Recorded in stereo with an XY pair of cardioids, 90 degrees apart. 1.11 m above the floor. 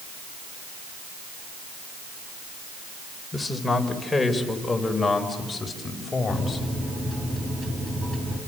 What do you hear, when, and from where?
3.3 s a man speaking: 15° left, 5 m; by 6.7 s 30° left, 6 m
6.3 s a microwave: 15° right, 6.5 m